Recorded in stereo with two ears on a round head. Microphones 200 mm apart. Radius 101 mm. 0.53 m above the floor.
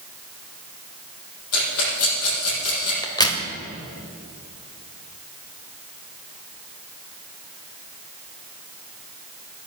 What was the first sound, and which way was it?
A rattle, 75° left (ahead or behind).